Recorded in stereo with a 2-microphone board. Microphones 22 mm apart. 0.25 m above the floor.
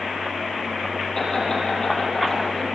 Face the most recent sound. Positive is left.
turn(degrees=25)  # may be behind; listen again after turning